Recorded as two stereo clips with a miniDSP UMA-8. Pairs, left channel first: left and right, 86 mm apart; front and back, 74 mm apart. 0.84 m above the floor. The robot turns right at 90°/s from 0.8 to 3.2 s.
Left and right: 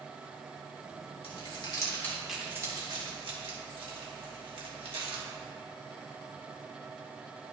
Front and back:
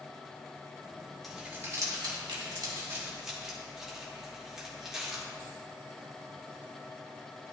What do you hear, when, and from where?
1.2 s crumpling: 90° left, 1.8 m; by 5.2 s 95° right, 1.8 m